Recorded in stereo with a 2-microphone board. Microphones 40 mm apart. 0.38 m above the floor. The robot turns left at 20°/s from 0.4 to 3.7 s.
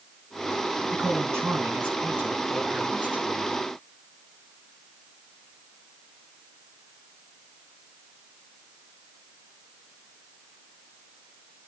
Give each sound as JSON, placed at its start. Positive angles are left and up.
{"t": 0.9, "sound": "a man speaking", "azimuth_deg": -90, "distance_m": 4.0}